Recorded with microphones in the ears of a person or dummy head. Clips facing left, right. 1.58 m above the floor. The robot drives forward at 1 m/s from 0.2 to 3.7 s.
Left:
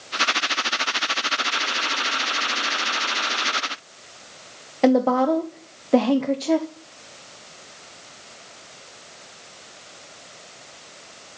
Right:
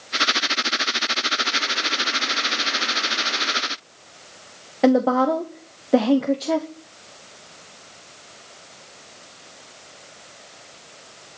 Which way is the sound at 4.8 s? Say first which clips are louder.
Even; 10° right (ahead or behind).